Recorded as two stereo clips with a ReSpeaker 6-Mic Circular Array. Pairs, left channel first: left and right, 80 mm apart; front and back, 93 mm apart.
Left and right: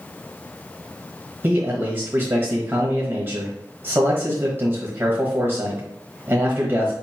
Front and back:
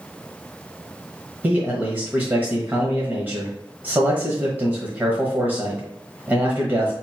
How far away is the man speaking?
About 1.2 m.